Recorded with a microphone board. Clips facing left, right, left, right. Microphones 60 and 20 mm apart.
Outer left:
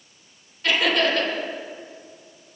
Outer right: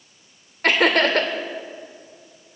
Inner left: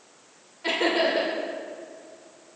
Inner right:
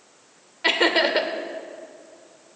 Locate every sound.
0.6 s laughter: 55° right (ahead or behind), 2 m